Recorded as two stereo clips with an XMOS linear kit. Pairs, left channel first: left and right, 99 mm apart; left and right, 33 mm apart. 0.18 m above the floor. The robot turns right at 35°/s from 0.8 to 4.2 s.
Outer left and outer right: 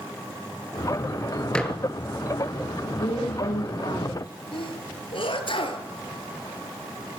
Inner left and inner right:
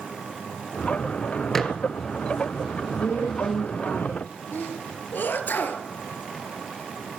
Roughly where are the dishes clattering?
Centre.